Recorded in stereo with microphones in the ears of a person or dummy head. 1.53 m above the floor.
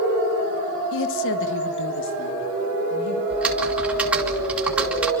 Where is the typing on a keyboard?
5° right (ahead or behind), 3 m.